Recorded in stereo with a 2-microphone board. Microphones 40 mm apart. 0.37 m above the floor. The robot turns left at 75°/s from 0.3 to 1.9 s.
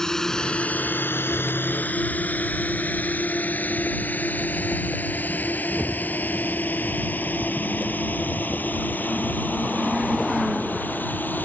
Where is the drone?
15° left (ahead or behind); by 11.4 s 55° left (ahead or behind).